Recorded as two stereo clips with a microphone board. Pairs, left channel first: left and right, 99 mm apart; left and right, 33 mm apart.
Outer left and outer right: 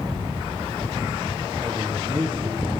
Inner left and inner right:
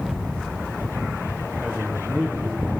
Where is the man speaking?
45° right (ahead or behind), 1.8 m.